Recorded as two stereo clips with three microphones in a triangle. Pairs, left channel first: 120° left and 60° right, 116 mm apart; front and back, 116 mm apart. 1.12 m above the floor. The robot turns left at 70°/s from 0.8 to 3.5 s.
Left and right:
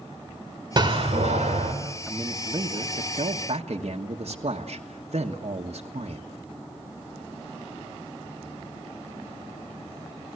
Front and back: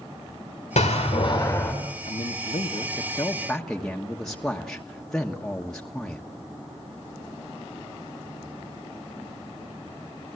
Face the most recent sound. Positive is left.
turn(degrees=-85)